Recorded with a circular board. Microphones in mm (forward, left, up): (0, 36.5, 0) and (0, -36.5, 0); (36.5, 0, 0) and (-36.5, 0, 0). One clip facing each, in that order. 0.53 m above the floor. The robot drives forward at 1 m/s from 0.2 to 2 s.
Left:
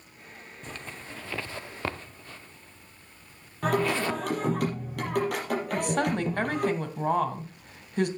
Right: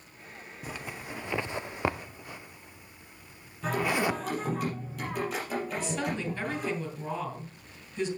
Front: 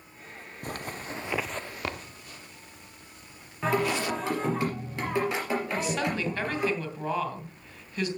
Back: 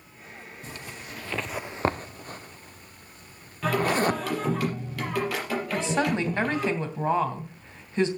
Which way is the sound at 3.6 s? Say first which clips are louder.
Left 2 dB, back 3 dB; 65° left.